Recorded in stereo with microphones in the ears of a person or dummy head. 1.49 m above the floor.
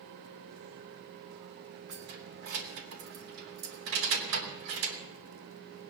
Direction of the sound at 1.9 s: 70° right (ahead or behind).